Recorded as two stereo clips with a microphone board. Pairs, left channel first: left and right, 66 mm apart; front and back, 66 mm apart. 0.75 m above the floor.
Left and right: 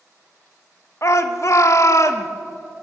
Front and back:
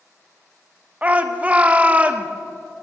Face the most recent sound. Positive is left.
turn(degrees=120)